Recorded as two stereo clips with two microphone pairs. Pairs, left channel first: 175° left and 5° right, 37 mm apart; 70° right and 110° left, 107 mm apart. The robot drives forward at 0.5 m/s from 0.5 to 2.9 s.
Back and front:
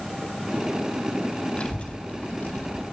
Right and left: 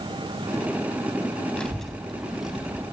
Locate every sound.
1.6 s a child speaking: 145° right, 0.7 m; by 2.8 s 165° right, 1.1 m